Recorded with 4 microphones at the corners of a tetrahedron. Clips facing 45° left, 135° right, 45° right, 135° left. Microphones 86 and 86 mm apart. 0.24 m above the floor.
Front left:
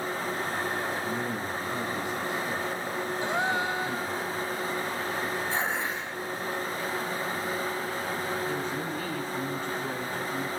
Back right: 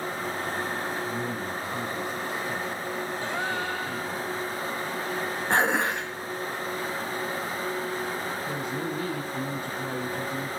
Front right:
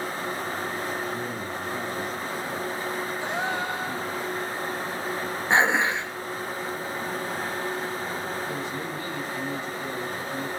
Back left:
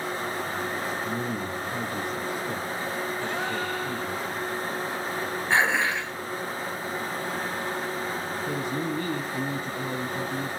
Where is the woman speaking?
150° left, 1.9 m.